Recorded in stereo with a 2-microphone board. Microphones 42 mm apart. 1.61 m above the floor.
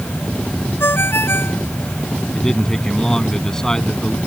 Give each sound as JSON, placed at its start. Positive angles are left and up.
{"t": 0.8, "sound": "a ringtone", "side_deg": 75}
{"t": 2.3, "sound": "a man speaking", "side_deg": 15}